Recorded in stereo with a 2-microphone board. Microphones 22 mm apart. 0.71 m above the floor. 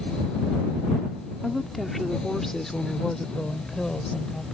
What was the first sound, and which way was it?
A woman speaking, 5° left (ahead or behind).